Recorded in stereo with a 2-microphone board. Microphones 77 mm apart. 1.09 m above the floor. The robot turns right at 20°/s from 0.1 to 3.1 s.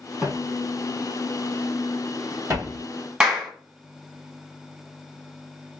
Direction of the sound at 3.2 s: 15° right (ahead or behind).